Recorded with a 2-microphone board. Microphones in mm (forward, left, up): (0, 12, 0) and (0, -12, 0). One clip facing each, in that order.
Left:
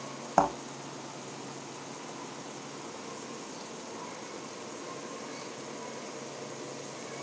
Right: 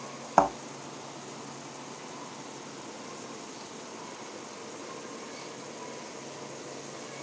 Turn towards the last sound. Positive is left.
turn(degrees=-20)  # may be behind; listen again after turning